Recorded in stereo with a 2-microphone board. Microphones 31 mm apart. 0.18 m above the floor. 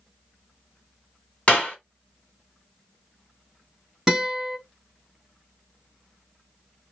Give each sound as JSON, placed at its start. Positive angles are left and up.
{"t": 1.5, "sound": "a clap", "side_deg": 35, "distance_m": 1.3}
{"t": 4.1, "sound": "a guitar", "side_deg": -15, "distance_m": 1.7}